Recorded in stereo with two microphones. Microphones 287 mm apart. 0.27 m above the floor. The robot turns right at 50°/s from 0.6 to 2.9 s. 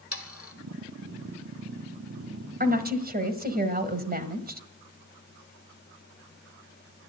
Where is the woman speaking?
30° right (ahead or behind), 1.4 m.